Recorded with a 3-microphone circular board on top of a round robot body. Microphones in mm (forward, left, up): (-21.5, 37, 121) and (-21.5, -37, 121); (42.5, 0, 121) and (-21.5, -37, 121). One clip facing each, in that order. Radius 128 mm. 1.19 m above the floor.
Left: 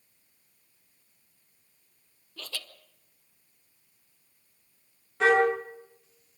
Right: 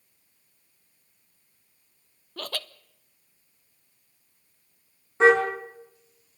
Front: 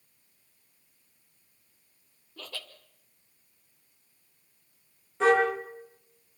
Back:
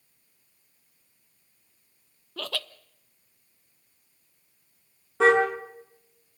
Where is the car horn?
155° right, 7 m.